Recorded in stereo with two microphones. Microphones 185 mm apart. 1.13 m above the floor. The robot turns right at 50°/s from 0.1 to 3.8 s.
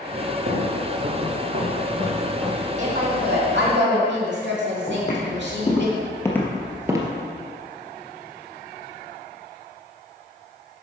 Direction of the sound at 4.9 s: 40° left (ahead or behind).